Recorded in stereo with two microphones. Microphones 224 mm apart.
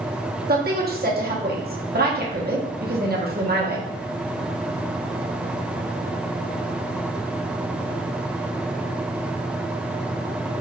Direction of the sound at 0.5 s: 45° right (ahead or behind).